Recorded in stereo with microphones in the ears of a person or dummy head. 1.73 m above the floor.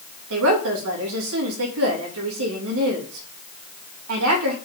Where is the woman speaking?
75° right (ahead or behind), 3 m.